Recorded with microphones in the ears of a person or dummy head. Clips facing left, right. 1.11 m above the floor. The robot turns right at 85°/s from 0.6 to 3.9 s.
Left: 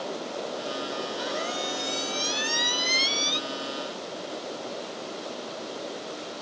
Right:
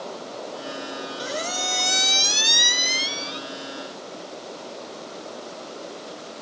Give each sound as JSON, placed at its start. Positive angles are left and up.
{"t": 1.2, "sound": "a squeak", "azimuth_deg": -160, "distance_m": 0.5}